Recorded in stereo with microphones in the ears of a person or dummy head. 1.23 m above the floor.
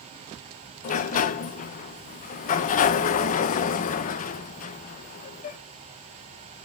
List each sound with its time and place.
0.8 s a sliding door: 40° left (ahead or behind), 0.5 m